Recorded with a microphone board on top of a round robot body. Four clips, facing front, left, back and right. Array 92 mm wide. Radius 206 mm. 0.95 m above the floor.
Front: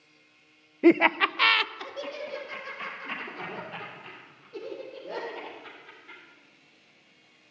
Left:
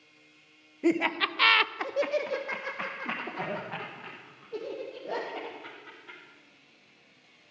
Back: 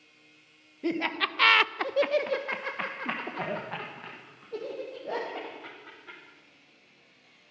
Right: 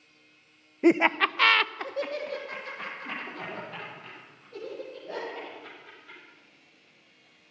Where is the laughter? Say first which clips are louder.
Right 5 dB, front 10 dB; 30° right, 0.6 m; by 6.2 s 155° left, 3 m.